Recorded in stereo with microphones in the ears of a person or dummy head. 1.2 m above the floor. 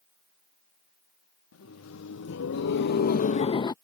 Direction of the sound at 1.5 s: 85° left.